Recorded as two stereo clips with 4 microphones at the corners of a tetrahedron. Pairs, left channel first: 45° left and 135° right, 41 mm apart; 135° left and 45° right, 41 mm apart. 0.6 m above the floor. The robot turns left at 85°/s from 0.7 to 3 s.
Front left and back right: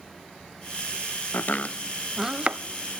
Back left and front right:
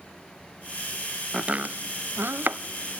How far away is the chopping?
About 0.7 m.